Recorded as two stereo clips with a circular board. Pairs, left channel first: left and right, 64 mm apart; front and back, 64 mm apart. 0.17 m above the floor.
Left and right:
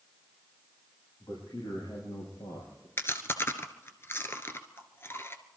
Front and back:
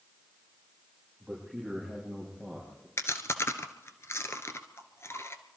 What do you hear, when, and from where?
1.2 s a man speaking: 85° left, 6 m; by 2.9 s 80° left, 5.5 m
3.0 s chewing: 45° left, 1.1 m